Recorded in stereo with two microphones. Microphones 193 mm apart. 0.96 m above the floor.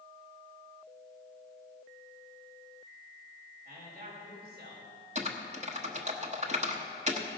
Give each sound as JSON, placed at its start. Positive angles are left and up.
{"t": 3.6, "sound": "a man speaking", "side_deg": -45, "distance_m": 5.0}
{"t": 5.2, "sound": "typing on a keyboard", "side_deg": -35, "distance_m": 1.1}